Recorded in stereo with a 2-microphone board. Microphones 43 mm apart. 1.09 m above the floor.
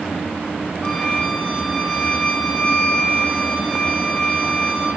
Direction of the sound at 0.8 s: 30° left (ahead or behind).